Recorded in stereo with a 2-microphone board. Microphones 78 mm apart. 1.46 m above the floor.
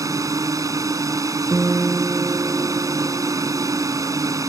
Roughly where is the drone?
Right.